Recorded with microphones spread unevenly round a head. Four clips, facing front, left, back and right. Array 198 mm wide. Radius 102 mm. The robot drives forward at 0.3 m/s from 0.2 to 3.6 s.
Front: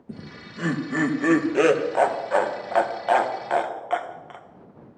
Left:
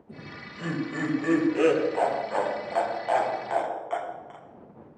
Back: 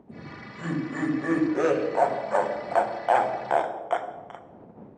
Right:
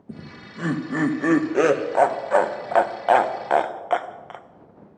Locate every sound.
0.1 s laughter: 40° right, 1.7 m; by 4.5 s 75° right, 1.2 m